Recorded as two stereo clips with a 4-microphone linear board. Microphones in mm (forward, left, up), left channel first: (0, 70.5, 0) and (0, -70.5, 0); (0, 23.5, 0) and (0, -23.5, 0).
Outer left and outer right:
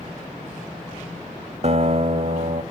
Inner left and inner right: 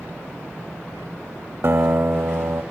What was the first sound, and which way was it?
A guitar, 55° right (ahead or behind).